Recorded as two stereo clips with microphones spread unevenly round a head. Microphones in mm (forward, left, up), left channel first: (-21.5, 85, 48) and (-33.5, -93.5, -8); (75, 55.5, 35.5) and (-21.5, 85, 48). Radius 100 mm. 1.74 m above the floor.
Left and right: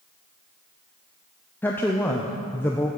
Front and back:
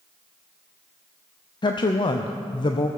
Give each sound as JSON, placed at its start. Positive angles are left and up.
{"t": 1.6, "sound": "a woman speaking", "azimuth_deg": 25, "distance_m": 0.5}